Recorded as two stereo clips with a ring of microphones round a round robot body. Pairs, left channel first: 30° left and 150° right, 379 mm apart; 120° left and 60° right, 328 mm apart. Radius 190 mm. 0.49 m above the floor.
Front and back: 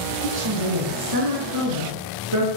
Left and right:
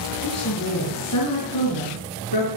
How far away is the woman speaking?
About 5 m.